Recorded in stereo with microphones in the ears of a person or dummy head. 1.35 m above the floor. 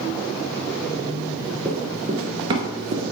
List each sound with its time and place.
1.6 s running footsteps: 5° right (ahead or behind), 1.3 m; by 3.0 s 40° right (ahead or behind), 1.8 m